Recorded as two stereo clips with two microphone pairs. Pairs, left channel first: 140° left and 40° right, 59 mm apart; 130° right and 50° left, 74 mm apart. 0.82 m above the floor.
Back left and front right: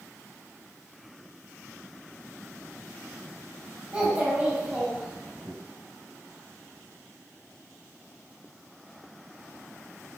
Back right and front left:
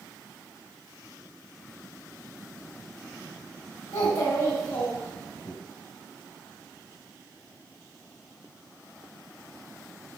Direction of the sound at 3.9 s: 105° right.